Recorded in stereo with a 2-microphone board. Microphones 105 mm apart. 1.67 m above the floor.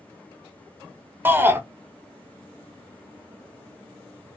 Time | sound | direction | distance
1.2 | a shout | 20° right (ahead or behind) | 0.6 m